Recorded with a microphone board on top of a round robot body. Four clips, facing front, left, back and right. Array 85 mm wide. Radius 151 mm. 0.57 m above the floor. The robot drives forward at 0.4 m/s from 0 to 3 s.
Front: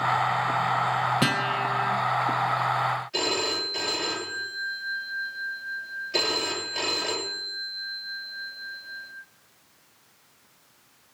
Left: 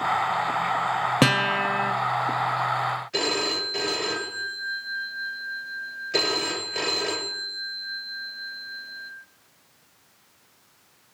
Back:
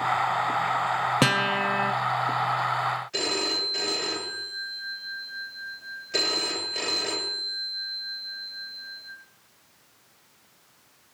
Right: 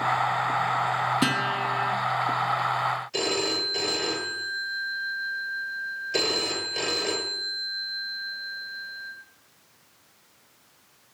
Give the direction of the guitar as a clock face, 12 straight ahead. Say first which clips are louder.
Left 3 dB, back 2 dB; 8 o'clock.